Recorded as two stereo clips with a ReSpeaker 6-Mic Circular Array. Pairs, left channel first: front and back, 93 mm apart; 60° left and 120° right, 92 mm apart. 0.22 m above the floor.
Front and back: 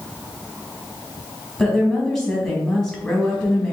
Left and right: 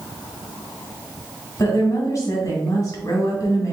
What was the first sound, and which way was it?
A woman speaking, 80° left.